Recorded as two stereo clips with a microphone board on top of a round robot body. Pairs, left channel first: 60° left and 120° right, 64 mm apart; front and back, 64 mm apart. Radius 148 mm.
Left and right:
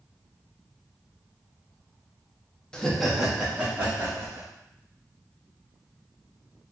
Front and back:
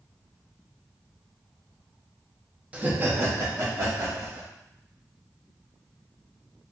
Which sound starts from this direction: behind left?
Laughter, at 2.7 s.